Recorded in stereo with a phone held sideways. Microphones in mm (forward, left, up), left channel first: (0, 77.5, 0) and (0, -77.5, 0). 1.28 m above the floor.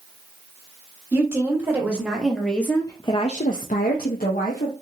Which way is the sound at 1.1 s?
20° right (ahead or behind).